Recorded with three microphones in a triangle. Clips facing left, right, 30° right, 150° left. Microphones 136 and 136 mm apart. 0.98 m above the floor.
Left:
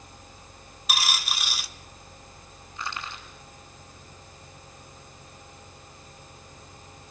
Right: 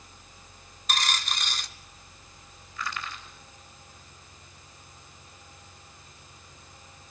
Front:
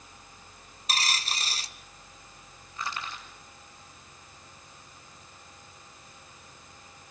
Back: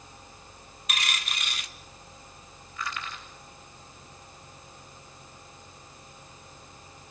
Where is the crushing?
30° left, 4.5 m.